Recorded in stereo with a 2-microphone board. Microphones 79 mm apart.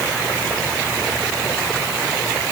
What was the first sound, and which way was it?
Only background noise.